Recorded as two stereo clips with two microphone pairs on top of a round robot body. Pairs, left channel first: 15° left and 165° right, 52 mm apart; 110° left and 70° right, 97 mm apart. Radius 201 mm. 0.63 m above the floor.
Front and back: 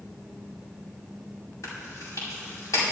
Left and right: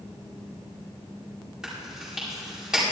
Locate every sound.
1.6 s chewing: 15° left, 5 m